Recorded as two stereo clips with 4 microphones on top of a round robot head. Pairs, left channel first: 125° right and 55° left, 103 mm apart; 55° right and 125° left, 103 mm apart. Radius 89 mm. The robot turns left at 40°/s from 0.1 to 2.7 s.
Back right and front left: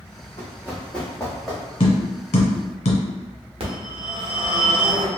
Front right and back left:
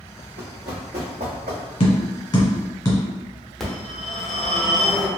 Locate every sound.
0.4 s running footsteps: 165° left, 1.2 m; by 1.6 s 140° left, 1.5 m
1.8 s tapping: 90° right, 1.4 m; by 3.0 s 125° right, 1.4 m
3.6 s a phone ringing: 35° left, 1.0 m